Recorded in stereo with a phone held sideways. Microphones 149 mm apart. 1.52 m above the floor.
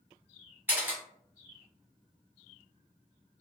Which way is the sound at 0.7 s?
15° right (ahead or behind).